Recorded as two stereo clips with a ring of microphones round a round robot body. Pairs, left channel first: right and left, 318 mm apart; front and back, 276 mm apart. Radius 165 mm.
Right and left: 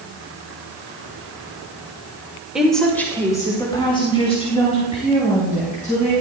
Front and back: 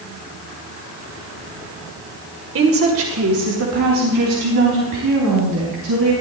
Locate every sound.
2.5 s a woman speaking: 175° left, 1.7 m; by 6.1 s 155° right, 5.5 m